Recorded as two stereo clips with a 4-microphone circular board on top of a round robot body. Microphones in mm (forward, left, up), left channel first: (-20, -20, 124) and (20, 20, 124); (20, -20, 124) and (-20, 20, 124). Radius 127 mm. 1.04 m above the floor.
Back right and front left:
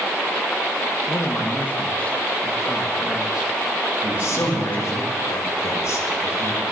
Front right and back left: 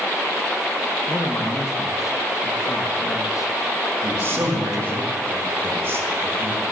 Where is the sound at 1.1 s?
95° right, 1.8 m; by 5.0 s 10° right, 3.5 m.